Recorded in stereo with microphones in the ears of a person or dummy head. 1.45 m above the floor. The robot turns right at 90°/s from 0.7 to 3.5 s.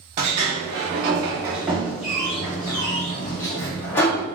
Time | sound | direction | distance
0.2 | a sliding door | 15° right (ahead or behind) | 0.5 m